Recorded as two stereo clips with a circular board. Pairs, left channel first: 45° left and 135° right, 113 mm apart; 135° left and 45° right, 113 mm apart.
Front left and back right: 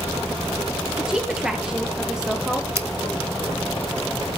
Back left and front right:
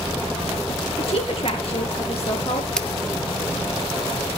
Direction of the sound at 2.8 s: 145° right.